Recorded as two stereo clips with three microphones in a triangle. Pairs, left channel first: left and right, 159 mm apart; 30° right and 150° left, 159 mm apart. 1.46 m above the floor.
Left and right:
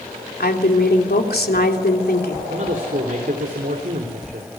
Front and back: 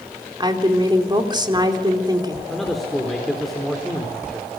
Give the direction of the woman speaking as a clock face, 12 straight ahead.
9 o'clock.